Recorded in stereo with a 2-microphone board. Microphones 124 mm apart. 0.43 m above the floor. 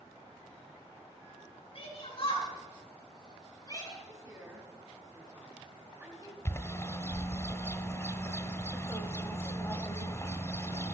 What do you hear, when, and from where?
1.8 s a shout: 50° left (ahead or behind), 6 m; by 3.9 s 25° left (ahead or behind), 6.5 m
4.0 s a woman speaking: 25° right (ahead or behind), 4 m
6.5 s a bird: 20° left (ahead or behind), 1.3 m